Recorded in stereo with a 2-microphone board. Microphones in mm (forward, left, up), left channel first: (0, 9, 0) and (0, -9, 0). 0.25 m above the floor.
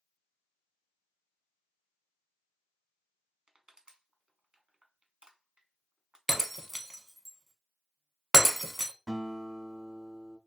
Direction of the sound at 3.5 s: 55° right (ahead or behind).